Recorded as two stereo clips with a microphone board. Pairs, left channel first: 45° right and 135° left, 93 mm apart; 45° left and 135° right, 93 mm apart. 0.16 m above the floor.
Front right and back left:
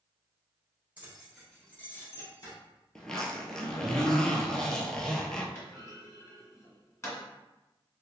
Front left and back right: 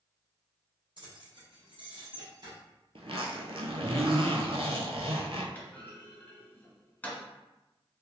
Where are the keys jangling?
155° right, 2.0 m; by 2.5 s 95° right, 2.5 m.